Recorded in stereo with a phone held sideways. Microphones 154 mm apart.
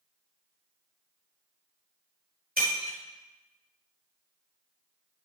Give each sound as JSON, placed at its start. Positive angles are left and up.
{"t": 2.6, "sound": "breaking glass", "side_deg": -70, "distance_m": 2.5}